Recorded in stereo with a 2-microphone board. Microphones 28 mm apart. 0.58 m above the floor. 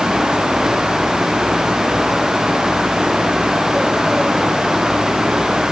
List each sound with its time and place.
Only background noise.